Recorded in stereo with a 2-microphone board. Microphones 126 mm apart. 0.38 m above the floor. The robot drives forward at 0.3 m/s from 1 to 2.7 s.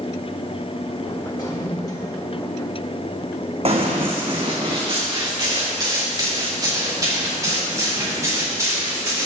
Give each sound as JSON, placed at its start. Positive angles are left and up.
{"t": 1.4, "sound": "a toilet flushing", "side_deg": 35, "distance_m": 1.7}
{"t": 3.6, "sound": "running footsteps", "side_deg": -55, "distance_m": 1.7}